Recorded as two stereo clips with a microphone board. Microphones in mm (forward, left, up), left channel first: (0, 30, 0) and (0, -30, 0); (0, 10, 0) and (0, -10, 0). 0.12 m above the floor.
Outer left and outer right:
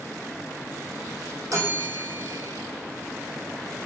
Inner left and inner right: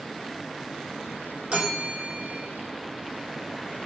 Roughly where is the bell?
Right.